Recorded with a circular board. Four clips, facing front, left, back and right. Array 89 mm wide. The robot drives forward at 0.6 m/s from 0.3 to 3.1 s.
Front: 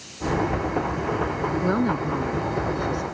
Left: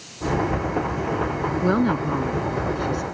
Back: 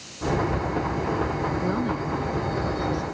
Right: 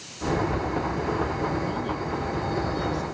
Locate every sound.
1.6 s a woman speaking: 65° left; by 3.0 s 70° left